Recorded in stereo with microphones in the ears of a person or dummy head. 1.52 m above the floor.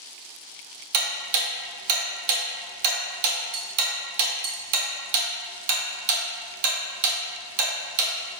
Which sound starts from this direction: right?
Ticking, at 0.9 s.